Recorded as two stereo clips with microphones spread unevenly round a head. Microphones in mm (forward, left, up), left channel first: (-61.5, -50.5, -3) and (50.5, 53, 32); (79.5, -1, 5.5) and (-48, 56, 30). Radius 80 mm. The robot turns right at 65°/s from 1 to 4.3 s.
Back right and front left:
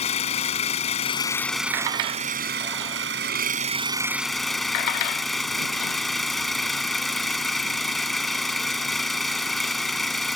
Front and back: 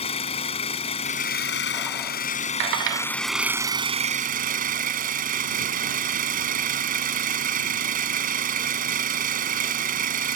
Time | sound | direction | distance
0.0 | an engine running | 85° right | ?